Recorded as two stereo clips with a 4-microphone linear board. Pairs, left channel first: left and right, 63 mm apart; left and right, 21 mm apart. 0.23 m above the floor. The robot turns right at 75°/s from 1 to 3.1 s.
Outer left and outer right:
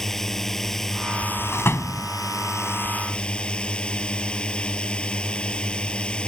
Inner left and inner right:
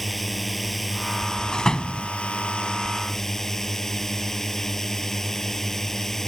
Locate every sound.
0.0 s a drone: 5° left; by 6.3 s 165° left
1.5 s a door slam: 35° left (ahead or behind); by 2.1 s 45° left (ahead or behind)